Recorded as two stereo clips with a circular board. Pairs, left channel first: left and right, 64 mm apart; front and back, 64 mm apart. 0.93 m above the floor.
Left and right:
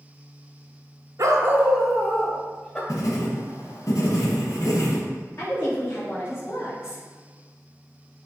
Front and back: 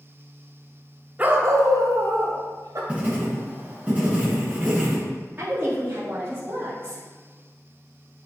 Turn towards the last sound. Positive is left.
turn(degrees=125)